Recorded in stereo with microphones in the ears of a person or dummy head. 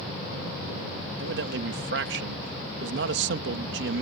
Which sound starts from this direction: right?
A man speaking, at 1.2 s.